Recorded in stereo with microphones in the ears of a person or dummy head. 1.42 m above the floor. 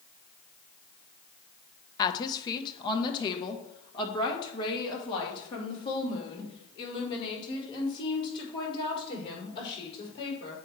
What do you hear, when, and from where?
2.0 s a woman speaking: 30° left (ahead or behind), 0.7 m; by 10.6 s 35° left (ahead or behind), 5 m